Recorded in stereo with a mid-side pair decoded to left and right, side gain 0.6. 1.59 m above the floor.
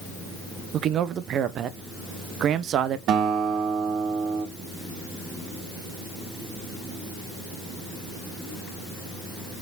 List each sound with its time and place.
0.7 s a man speaking: 50° right, 1.2 m
3.1 s a guitar: 60° right, 2.5 m